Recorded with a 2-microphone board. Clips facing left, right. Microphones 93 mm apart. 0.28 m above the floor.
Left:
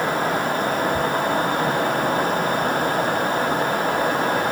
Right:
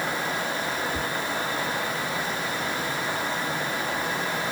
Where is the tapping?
55° left (ahead or behind), 2.5 m.